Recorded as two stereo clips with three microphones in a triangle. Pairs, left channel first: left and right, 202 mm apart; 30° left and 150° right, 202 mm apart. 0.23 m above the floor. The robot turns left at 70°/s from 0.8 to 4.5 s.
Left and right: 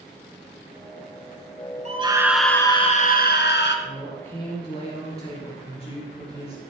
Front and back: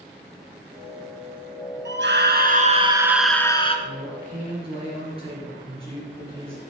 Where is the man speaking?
165° right, 3.5 m; by 6.6 s 150° left, 3.5 m.